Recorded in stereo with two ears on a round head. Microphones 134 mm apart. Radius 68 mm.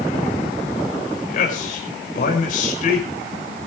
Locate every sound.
1.3 s a man speaking: 60° left (ahead or behind), 5 m